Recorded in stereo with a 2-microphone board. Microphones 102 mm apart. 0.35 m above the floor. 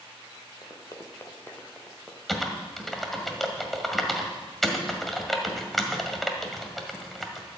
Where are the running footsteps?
45° left (ahead or behind), 3 m; by 2.2 s 5° left (ahead or behind), 3 m.